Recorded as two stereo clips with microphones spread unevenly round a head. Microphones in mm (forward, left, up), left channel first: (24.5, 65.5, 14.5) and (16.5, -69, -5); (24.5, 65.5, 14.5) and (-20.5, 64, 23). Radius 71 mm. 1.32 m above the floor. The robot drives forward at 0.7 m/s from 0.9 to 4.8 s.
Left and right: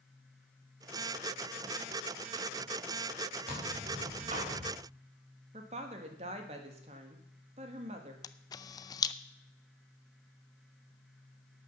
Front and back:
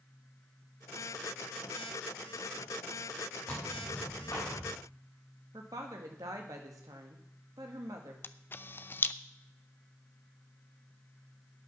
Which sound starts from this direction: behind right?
A woman speaking, at 5.5 s.